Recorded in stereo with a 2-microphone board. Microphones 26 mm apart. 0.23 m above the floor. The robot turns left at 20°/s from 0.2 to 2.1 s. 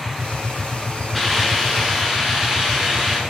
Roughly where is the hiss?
Centre.